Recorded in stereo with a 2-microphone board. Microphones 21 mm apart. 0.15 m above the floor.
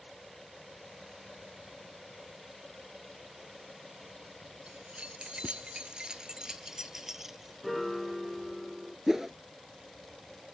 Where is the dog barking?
No dog barking in this recording.